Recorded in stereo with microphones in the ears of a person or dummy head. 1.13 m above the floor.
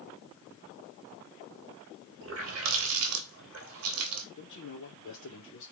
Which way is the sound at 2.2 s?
65° right (ahead or behind).